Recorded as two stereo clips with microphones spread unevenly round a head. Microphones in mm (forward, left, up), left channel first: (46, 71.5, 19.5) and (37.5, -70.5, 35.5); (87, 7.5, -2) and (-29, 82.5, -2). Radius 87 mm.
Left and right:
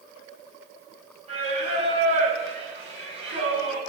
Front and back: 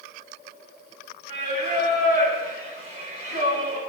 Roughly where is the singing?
Ahead right.